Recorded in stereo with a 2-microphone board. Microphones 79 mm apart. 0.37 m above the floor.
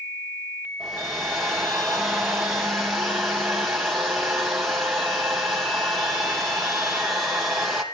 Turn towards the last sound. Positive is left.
turn(degrees=0)  # may be behind; listen again after turning